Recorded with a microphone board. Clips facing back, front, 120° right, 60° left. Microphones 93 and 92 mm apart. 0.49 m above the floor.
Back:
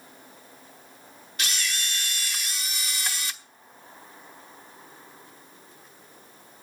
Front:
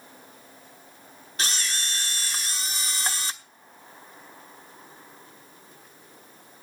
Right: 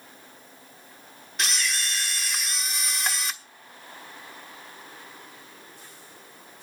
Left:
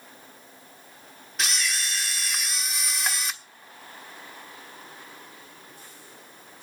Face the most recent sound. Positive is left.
turn(degrees=-30)